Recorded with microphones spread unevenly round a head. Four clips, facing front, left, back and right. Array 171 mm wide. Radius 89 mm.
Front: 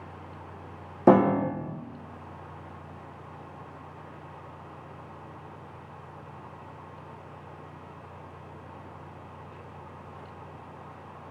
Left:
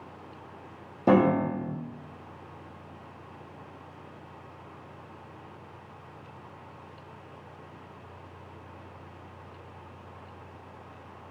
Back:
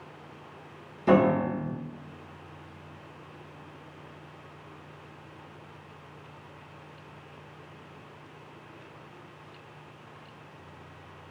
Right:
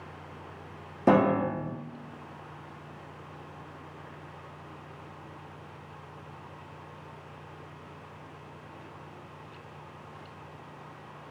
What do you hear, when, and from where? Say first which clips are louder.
1.1 s a piano: left 1 dB, front 2 dB; 5° right, 0.6 m